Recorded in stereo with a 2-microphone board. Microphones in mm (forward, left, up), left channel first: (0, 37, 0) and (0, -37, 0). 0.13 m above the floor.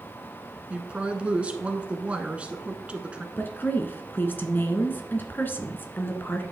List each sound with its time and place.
0.7 s a woman speaking: 15° right (ahead or behind), 1.3 m
3.4 s a woman speaking: 25° left (ahead or behind), 1.2 m